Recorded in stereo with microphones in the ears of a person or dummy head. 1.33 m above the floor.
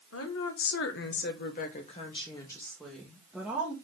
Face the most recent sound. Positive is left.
turn(degrees=-5)  # may be behind; listen again after turning